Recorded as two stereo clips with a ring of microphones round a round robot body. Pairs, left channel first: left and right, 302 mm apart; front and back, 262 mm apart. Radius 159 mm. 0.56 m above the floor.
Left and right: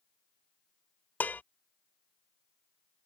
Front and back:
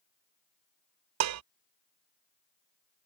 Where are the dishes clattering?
175° left.